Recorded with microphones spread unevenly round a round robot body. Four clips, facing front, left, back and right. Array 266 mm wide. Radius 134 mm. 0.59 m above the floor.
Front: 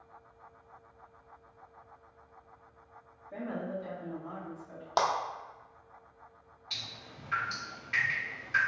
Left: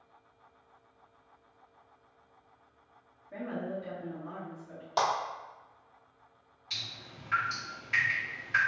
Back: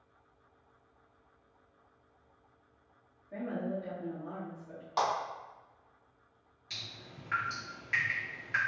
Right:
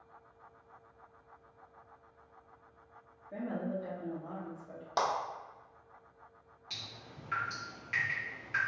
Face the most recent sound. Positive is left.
turn(degrees=-120)